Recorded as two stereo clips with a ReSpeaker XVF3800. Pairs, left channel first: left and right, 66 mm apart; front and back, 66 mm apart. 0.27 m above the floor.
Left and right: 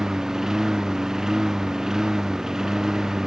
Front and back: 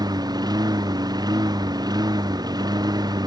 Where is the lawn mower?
170° right.